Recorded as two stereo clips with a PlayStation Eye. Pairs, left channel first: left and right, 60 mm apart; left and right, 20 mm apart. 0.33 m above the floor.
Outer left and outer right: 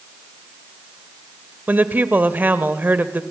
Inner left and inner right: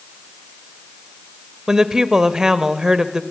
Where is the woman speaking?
30° right (ahead or behind), 1.4 m.